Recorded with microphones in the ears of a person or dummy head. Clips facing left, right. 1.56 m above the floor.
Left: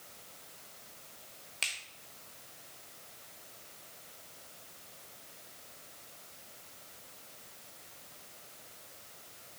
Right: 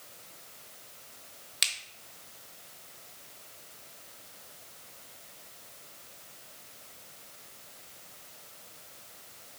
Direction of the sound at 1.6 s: 20° right (ahead or behind).